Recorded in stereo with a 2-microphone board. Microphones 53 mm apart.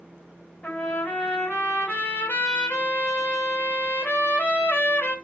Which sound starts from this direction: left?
A trumpet, at 0.6 s.